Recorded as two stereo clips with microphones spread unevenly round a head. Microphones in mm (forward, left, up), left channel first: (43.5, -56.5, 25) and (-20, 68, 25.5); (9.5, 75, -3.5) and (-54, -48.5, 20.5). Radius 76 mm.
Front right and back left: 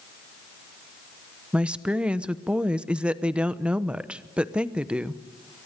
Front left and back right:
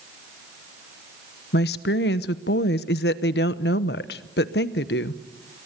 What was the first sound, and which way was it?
A woman speaking, 35° left.